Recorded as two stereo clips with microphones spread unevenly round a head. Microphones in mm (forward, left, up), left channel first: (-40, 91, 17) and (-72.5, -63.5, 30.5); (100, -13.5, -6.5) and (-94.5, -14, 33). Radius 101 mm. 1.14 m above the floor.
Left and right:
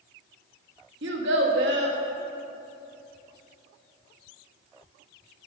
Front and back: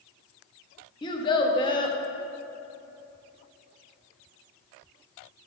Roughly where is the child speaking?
Right.